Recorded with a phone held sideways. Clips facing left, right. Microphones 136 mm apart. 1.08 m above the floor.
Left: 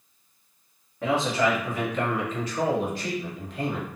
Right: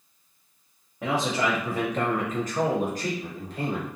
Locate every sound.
1.0 s a man speaking: 10° right (ahead or behind), 0.7 m; by 3.9 s 35° right (ahead or behind), 1.3 m